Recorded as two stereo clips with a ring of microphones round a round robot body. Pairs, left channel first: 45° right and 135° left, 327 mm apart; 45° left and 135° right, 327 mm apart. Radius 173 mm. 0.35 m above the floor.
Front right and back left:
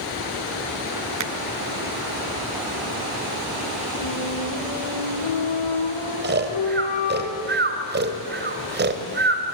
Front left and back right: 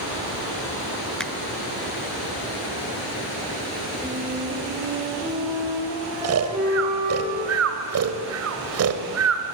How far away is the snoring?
About 1.8 m.